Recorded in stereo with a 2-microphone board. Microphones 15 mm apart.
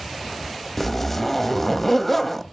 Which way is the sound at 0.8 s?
10° left (ahead or behind).